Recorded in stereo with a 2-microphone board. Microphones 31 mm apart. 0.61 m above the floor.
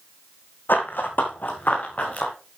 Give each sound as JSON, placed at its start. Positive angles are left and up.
{"t": 0.7, "sound": "running footsteps", "side_deg": 70, "distance_m": 2.0}